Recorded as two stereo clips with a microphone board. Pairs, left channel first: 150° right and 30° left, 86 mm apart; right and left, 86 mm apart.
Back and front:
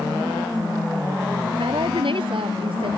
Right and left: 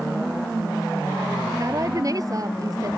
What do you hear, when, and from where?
1.6 s a woman speaking: 40° left